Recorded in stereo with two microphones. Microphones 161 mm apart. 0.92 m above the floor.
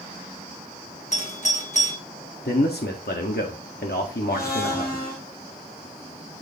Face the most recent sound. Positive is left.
turn(degrees=65)  # may be behind; listen again after turning